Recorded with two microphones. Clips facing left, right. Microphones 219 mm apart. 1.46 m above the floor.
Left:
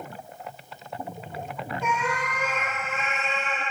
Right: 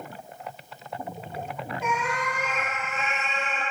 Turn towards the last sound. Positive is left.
turn(degrees=-15)  # may be behind; listen again after turning